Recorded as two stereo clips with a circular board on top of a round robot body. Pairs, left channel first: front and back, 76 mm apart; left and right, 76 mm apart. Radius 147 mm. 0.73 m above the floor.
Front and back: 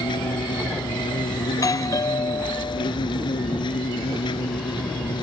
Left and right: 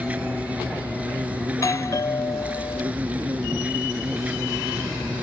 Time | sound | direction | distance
0.0 | an insect | 15° right | ?
1.5 | a doorbell | 45° left | ?